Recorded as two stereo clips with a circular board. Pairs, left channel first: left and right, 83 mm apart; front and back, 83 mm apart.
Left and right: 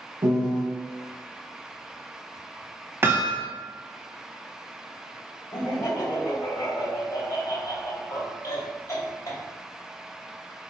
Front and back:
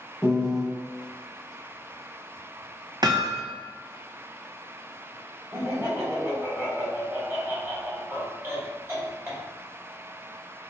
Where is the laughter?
130° left, 1.7 m.